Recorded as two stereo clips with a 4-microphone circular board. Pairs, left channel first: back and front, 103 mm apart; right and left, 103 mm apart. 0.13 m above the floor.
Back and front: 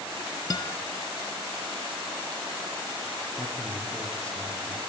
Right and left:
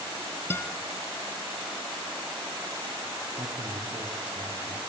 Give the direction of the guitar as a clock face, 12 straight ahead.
5 o'clock.